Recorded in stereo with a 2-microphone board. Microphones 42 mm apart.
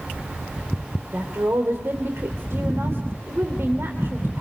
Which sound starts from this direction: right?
A woman speaking, at 1.1 s.